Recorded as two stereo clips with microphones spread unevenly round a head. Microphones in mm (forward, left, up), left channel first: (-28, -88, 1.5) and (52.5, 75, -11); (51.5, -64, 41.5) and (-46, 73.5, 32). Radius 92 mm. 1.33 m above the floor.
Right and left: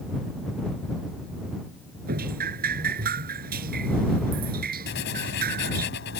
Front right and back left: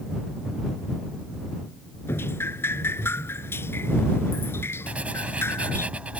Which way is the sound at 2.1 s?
20° left.